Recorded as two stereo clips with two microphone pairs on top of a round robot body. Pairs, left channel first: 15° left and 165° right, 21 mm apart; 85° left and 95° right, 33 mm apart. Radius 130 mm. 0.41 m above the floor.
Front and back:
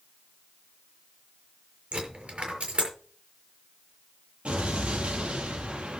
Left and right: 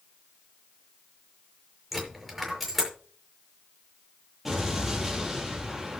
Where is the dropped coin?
170° left, 6 m.